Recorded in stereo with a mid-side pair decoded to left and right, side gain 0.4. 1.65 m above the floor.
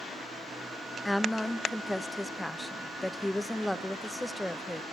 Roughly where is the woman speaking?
Ahead.